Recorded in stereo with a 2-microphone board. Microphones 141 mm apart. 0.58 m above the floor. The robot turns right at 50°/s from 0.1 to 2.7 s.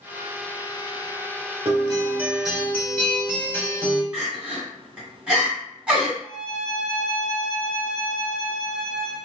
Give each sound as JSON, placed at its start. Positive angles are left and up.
{"t": 1.6, "sound": "a guitar", "azimuth_deg": -40, "distance_m": 0.8}
{"t": 4.1, "sound": "crying", "side_deg": -5, "distance_m": 1.3}
{"t": 6.2, "sound": "a violin", "side_deg": -5, "distance_m": 0.9}